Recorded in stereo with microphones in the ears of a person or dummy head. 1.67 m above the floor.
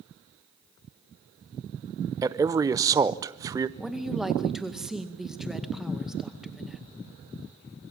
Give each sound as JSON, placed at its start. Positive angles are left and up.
{"t": 2.2, "sound": "a man speaking", "side_deg": -20, "distance_m": 0.6}
{"t": 3.8, "sound": "a woman speaking", "side_deg": 0, "distance_m": 1.9}